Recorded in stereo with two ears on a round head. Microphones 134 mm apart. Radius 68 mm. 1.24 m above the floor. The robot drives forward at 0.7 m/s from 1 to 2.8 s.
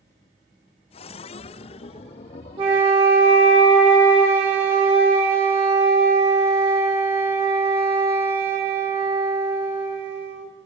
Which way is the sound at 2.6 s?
35° right (ahead or behind).